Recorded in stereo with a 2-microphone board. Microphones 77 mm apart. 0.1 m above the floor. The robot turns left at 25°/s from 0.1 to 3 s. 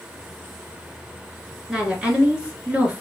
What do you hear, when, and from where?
1.7 s a woman speaking: 10° right (ahead or behind), 1.3 m; by 3.0 s 20° right (ahead or behind), 1.3 m